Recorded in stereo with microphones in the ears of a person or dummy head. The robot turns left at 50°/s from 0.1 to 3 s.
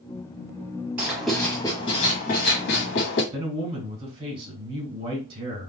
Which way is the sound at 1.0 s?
170° right.